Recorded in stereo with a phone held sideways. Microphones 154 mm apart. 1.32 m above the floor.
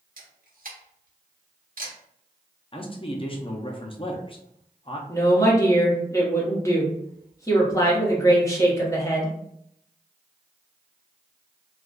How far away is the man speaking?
About 0.6 m.